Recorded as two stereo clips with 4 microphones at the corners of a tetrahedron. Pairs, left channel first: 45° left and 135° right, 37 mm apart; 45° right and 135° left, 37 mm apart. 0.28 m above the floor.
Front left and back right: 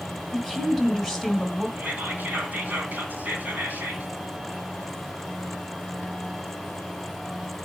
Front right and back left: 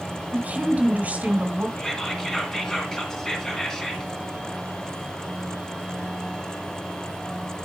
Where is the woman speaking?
140° left, 1.8 m.